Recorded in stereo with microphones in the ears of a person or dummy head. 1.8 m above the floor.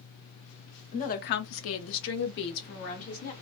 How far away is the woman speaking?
About 0.6 m.